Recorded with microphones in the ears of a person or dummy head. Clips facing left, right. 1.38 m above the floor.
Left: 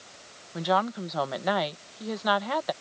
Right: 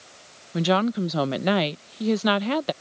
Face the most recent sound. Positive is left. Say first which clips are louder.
# right 5 dB
turn(degrees=-40)  # may be behind; listen again after turning